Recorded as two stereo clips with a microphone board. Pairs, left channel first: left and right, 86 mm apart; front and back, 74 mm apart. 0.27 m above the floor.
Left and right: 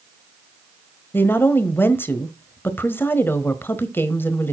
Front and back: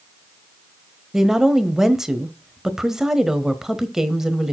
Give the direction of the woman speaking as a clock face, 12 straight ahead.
9 o'clock.